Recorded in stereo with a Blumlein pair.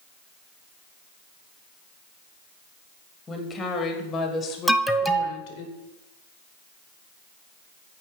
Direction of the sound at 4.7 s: Straight ahead.